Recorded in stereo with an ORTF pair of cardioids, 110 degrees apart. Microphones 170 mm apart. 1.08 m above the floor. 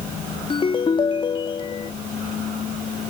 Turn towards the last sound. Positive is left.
turn(degrees=30)